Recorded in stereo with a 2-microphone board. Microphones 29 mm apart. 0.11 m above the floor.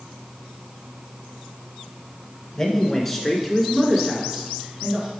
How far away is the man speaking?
About 1.3 m.